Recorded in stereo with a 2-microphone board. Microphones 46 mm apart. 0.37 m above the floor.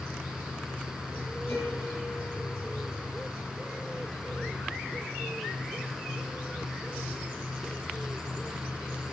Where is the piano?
50° left (ahead or behind), 6.5 m.